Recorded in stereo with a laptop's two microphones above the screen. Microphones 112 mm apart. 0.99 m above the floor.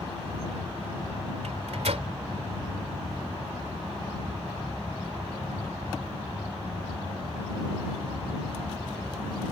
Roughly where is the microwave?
Right.